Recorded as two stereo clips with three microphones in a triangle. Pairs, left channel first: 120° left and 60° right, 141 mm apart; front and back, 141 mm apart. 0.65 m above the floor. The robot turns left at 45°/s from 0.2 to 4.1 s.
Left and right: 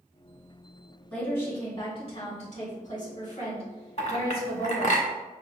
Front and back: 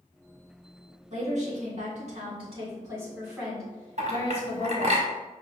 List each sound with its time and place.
1.1 s a woman speaking: 160° right, 1.9 m; by 5.0 s 65° left, 1.9 m
4.0 s a clink: 155° left, 1.0 m; by 5.1 s 150° left, 1.0 m